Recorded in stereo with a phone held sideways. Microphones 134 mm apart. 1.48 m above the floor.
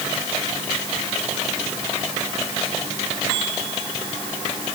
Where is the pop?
No pop in this recording.